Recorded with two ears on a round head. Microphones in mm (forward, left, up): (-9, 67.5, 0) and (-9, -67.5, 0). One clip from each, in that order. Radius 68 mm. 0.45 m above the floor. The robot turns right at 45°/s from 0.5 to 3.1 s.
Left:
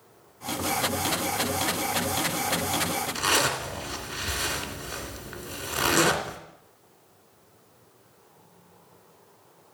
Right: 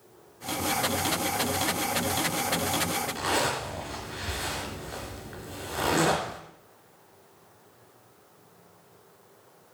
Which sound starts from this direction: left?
A zipper, at 3.1 s.